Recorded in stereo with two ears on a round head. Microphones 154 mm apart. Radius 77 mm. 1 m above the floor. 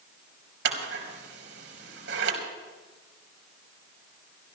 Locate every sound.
0.7 s scissors: 75° right (ahead or behind), 4 m